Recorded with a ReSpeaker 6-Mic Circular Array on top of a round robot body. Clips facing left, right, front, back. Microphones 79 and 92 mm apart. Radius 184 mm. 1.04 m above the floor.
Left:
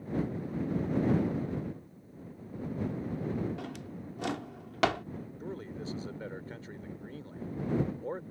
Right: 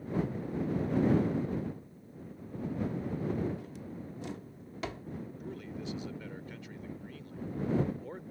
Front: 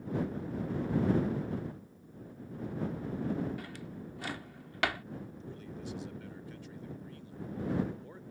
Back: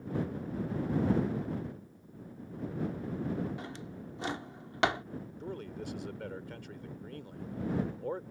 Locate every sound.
3.6 s a drawer: 115° left
5.4 s a man speaking: 145° left